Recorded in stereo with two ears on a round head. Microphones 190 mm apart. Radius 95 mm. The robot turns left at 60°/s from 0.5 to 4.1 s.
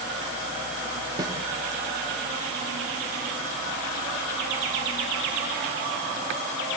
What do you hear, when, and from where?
1.2 s a snare drum: 20° right (ahead or behind), 2 m; by 1.4 s 10° right (ahead or behind), 2 m